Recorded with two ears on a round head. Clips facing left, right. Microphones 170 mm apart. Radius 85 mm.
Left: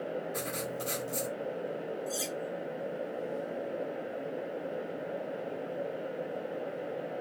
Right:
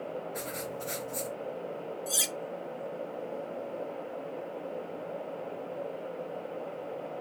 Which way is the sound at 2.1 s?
75° right (ahead or behind).